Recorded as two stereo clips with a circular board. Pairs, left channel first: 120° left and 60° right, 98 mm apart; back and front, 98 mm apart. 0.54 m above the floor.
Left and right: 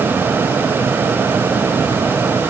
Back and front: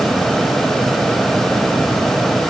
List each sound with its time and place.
Only background noise.